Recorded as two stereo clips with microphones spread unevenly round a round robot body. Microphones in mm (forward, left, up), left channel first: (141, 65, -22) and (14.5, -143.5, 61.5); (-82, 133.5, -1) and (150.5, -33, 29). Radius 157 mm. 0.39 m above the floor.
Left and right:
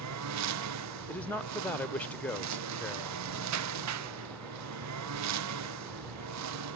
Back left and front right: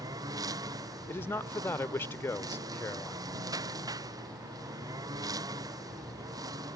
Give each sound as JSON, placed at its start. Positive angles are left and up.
{"t": 0.0, "sound": "a lawn mower", "azimuth_deg": -115}
{"t": 1.1, "sound": "a man speaking", "azimuth_deg": 85}